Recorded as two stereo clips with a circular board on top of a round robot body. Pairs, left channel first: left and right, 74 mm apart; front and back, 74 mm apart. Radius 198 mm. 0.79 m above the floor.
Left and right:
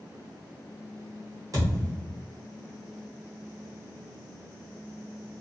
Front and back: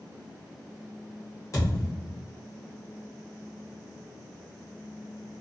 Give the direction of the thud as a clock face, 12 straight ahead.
2 o'clock.